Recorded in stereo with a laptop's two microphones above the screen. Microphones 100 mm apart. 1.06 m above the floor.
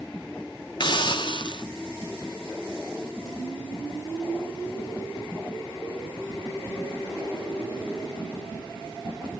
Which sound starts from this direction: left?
A hiss, at 0.8 s.